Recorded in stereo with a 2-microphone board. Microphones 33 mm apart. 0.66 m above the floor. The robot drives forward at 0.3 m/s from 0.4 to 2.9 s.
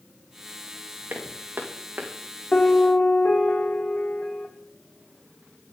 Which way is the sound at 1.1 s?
75° right (ahead or behind).